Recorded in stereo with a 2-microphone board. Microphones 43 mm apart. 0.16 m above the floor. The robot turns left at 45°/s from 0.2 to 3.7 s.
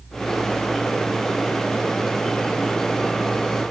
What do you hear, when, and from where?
Only background noise.